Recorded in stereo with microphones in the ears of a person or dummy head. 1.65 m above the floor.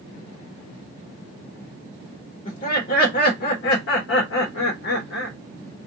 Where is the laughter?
45° left (ahead or behind), 1.4 m; by 5.4 s 65° left (ahead or behind), 1.4 m.